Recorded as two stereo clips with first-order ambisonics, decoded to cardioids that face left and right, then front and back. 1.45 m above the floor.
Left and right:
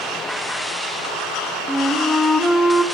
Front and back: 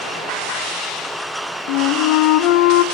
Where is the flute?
5° left, 0.8 m.